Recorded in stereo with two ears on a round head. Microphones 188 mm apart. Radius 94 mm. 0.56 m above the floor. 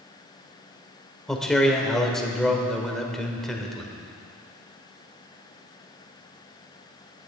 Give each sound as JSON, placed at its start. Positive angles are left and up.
{"t": 1.3, "sound": "a man speaking", "side_deg": 0, "distance_m": 1.6}